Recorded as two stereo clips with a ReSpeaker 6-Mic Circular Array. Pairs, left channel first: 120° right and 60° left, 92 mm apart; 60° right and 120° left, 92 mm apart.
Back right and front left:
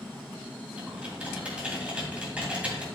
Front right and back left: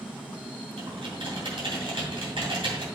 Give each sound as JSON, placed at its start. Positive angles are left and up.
{"t": 0.8, "sound": "typing on a keyboard", "azimuth_deg": 135, "distance_m": 2.5}